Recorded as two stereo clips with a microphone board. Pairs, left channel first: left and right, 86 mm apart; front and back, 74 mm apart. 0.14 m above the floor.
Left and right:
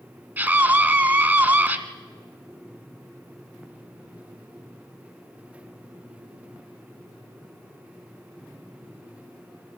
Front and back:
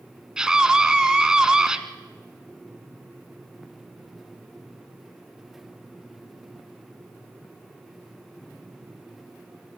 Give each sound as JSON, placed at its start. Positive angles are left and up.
{"t": 0.4, "sound": "a scream", "azimuth_deg": -115, "distance_m": 1.4}